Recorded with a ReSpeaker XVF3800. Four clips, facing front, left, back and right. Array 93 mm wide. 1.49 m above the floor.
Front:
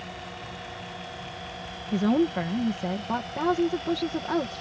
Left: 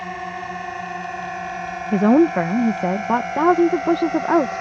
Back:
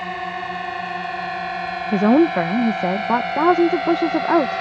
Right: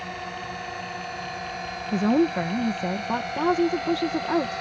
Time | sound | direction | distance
0.0 | a drone | 150° left | ?
1.9 | a woman speaking | 140° left | ?